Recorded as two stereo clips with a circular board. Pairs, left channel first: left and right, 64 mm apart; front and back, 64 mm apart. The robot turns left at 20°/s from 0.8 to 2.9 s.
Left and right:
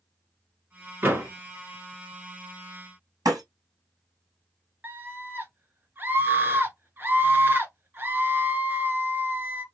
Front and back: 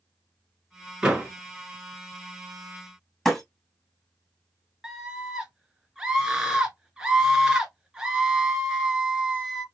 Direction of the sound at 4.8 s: 110° right.